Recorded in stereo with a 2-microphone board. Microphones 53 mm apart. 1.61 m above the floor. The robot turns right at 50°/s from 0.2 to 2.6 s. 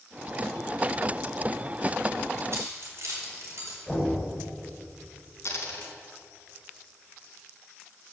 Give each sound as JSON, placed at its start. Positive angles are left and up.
{"t": 2.5, "sound": "keys jangling", "side_deg": -60, "distance_m": 5.0}
{"t": 3.9, "sound": "knocking", "side_deg": 5, "distance_m": 5.5}
{"t": 5.5, "sound": "a dropped coin", "side_deg": 60, "distance_m": 3.5}